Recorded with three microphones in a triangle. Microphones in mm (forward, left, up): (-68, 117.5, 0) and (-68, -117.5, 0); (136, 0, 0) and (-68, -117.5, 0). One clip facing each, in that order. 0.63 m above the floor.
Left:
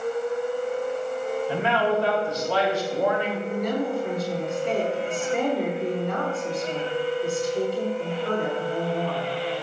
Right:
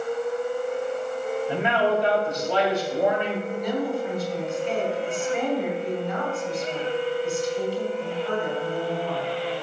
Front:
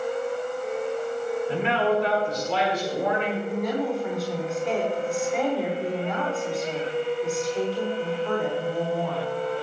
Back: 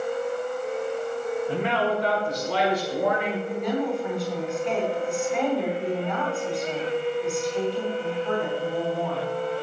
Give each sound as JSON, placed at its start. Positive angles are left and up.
{"t": 1.5, "sound": "a man speaking", "azimuth_deg": -160, "distance_m": 5.0}
{"t": 3.5, "sound": "a woman speaking", "azimuth_deg": 120, "distance_m": 5.0}